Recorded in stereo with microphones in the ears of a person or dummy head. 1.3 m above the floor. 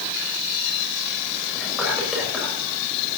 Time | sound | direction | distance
1.6 | whispering | 5° right (ahead or behind) | 6.5 m